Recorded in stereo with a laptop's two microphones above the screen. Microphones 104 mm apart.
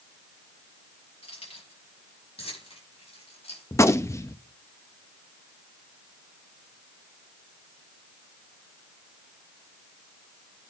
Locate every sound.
1.2 s keys jangling: 80° left, 6 m; by 3.6 s 85° left, 5 m
3.7 s a gunshot: 25° left (ahead or behind), 0.6 m